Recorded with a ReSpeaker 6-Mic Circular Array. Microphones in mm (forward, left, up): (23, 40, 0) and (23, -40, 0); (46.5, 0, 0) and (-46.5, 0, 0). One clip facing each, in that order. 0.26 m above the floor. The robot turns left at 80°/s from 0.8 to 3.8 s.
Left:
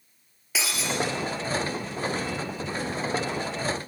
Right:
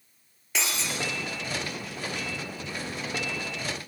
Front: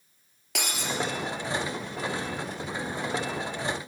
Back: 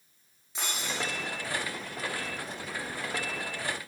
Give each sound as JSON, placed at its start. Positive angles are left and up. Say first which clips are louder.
{"t": 0.6, "sound": "breaking glass", "louder": "left 2 dB, front 4 dB", "azimuth_deg": 5, "distance_m": 3.0}